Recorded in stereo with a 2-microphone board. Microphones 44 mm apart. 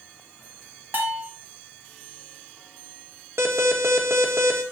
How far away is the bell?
About 1.7 m.